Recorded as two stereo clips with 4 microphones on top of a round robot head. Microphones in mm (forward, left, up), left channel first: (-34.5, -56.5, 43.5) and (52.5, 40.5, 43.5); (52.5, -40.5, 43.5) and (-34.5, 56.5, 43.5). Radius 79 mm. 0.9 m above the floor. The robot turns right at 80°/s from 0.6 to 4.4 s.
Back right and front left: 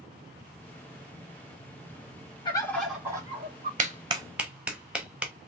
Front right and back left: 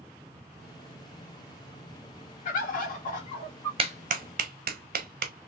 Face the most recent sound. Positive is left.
turn(degrees=130)